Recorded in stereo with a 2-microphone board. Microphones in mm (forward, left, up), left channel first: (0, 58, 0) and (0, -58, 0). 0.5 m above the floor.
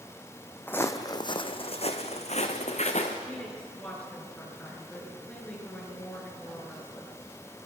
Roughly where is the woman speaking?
Centre.